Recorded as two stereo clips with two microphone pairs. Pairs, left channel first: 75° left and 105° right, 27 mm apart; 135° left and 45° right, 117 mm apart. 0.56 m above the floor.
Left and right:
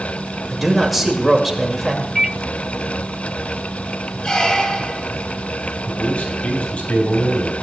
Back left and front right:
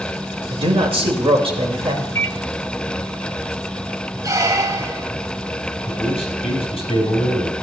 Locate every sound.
0.5 s a man speaking: 15° right, 2 m
2.1 s a microwave: straight behind, 0.5 m
4.2 s a squeak: 15° left, 0.9 m
5.8 s a man speaking: 105° left, 4 m